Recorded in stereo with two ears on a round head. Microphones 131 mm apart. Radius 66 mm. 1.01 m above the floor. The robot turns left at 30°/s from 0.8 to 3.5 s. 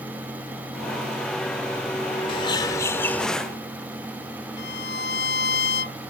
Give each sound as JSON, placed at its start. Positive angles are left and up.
{"t": 2.3, "sound": "a bird", "azimuth_deg": 40}
{"t": 4.6, "sound": "a violin", "side_deg": 80}